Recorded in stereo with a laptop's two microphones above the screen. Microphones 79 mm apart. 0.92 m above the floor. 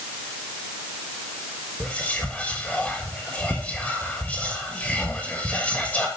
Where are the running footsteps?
I don't hear running footsteps.